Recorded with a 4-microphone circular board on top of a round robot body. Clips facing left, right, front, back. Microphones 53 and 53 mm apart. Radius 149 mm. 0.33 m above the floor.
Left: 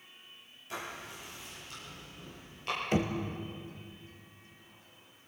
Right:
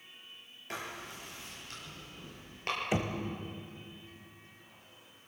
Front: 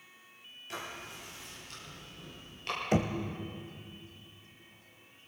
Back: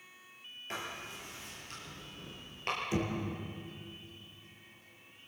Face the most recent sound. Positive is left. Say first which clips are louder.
# left 4 dB, front 7 dB
turn(degrees=-10)